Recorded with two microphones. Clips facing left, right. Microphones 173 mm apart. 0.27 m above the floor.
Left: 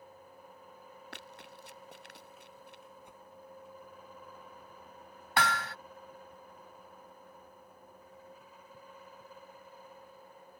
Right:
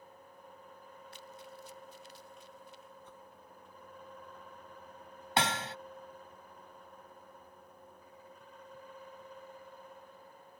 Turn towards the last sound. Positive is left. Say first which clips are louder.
# even
turn(degrees=-25)  # may be behind; listen again after turning